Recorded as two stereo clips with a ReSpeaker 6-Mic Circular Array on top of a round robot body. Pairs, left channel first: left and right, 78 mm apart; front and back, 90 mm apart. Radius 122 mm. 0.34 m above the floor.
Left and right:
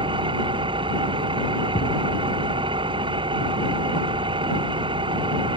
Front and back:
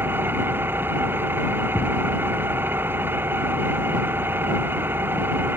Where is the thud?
100° left.